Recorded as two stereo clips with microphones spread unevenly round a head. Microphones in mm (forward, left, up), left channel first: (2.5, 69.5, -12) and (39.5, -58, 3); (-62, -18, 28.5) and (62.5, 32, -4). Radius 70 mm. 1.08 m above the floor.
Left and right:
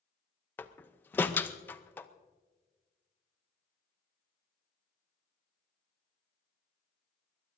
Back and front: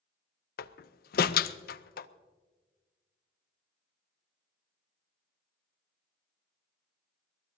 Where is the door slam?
Straight behind, 0.6 m.